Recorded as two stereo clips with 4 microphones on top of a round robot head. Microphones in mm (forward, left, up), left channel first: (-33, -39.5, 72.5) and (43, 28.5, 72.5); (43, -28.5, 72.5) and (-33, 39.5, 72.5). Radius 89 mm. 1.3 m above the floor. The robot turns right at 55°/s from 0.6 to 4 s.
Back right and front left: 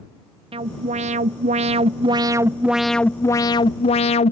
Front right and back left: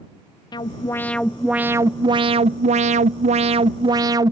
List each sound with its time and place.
0.5 s an alarm: 10° left; by 4.3 s 165° right